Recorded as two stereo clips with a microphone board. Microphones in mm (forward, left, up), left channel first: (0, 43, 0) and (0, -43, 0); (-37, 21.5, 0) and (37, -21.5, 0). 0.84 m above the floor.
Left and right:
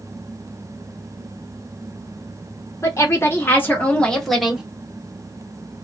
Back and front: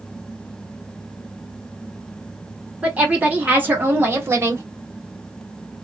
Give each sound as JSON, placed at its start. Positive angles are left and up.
{"t": 2.8, "sound": "a woman speaking", "azimuth_deg": 40, "distance_m": 1.8}